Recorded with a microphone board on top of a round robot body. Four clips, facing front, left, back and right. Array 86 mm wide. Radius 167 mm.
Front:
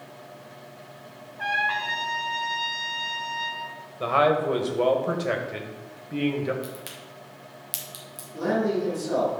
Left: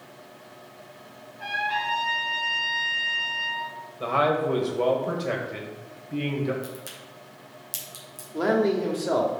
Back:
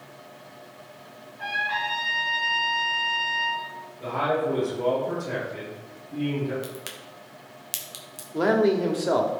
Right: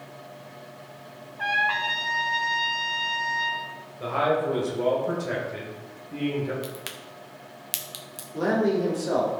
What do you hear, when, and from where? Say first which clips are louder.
1.4 s a trumpet: right 3 dB, front 2 dB; 65° right, 2.5 m
4.0 s a man speaking: left 1 dB, front 4 dB; 25° left, 2 m
6.6 s a crack: right 1 dB, even; 110° right, 1.6 m
8.3 s a man speaking: left 1 dB, back 4 dB; 160° left, 2.0 m